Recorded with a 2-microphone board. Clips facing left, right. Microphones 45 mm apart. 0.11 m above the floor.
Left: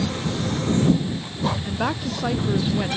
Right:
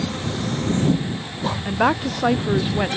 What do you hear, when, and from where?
1.6 s a woman speaking: 25° right (ahead or behind)